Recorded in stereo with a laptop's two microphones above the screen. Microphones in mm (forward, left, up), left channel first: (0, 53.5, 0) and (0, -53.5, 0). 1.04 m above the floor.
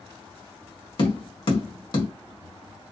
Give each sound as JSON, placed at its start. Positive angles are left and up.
{"t": 1.0, "sound": "tapping", "side_deg": 50, "distance_m": 1.8}